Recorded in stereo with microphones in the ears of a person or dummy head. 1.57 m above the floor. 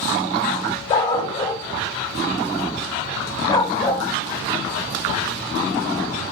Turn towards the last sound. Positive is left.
turn(degrees=25)  # may be behind; listen again after turning